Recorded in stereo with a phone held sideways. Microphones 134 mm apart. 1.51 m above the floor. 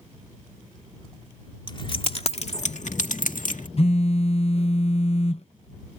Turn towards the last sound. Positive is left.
turn(degrees=50)  # may be behind; listen again after turning